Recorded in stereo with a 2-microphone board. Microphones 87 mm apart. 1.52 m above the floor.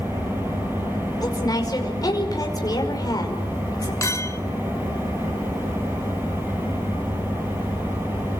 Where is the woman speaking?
50° left (ahead or behind), 5.5 m.